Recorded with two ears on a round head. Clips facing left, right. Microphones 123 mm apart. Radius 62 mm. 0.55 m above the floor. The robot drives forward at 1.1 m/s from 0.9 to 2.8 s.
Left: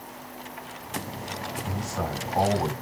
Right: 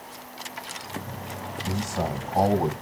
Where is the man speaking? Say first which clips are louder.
Right 4 dB; 25° right (ahead or behind), 2.5 m; by 2.7 s 15° right (ahead or behind), 3.5 m.